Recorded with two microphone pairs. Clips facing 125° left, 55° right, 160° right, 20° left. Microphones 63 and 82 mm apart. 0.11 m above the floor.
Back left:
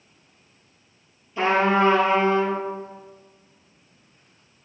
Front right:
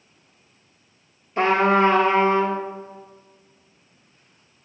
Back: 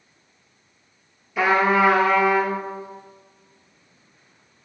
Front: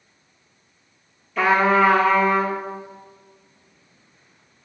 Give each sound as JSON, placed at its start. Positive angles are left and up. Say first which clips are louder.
{"t": 1.4, "sound": "a trumpet", "louder": "front right 2 dB, front 1 dB", "azimuth_deg": -80, "distance_m": 0.8}